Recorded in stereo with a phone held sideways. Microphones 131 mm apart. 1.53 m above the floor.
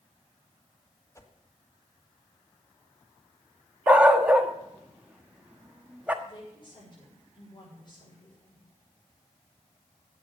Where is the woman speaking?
35° left (ahead or behind), 7 m.